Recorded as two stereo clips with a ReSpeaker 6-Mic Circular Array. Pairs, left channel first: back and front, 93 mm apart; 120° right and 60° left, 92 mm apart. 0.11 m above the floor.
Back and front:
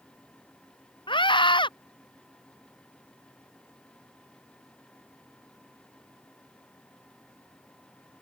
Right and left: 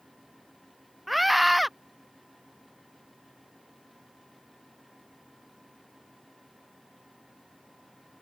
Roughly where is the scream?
Behind left.